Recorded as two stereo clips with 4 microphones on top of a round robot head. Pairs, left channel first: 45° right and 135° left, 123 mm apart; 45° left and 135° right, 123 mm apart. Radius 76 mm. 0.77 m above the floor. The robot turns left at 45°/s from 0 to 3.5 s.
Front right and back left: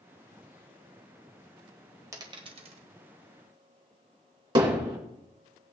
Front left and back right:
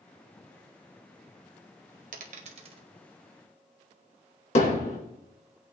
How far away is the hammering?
About 3 m.